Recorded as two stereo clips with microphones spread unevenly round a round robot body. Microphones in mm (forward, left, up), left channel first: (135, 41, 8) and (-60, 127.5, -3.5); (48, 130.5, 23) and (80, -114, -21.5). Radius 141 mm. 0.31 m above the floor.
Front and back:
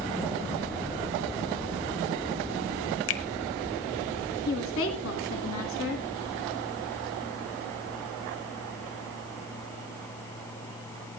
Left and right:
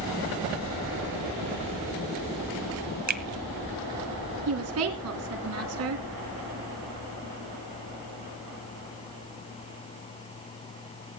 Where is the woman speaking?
65° right, 2.5 m.